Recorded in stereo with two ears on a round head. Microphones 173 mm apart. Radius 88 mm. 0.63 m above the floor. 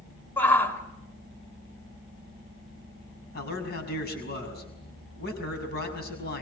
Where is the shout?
10° left (ahead or behind), 3 m.